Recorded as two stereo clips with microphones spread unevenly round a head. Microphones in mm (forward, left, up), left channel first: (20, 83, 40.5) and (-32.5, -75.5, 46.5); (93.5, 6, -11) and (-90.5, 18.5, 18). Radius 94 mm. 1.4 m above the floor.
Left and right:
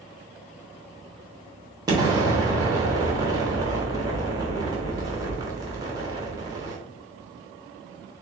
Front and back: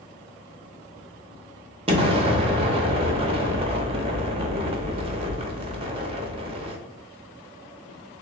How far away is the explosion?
About 0.7 m.